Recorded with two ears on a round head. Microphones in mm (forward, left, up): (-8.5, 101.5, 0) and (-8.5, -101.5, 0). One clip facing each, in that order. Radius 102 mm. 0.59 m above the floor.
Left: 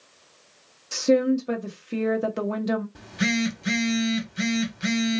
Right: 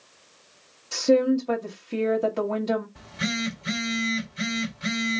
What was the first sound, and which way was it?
A woman speaking, 20° left (ahead or behind).